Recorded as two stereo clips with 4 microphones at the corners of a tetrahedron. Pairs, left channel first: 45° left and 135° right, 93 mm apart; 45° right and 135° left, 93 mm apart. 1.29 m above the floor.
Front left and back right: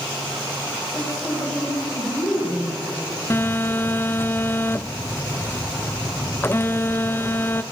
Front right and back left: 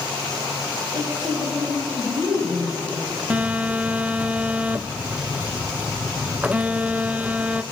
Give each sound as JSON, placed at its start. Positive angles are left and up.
{"t": 0.9, "sound": "a woman speaking", "azimuth_deg": 135, "distance_m": 7.0}
{"t": 3.3, "sound": "a phone buzzing", "azimuth_deg": 80, "distance_m": 0.5}